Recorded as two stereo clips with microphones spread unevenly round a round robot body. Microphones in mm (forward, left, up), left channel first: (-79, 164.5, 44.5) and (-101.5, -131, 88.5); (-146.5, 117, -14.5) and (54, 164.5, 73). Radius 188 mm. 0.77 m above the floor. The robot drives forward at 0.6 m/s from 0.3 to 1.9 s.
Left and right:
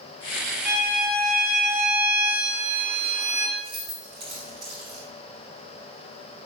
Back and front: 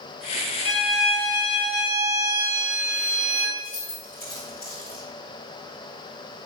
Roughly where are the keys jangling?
Behind right.